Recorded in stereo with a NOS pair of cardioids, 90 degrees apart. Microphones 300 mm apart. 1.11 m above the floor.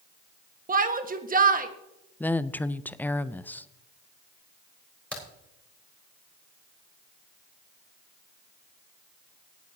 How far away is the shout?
About 1.5 m.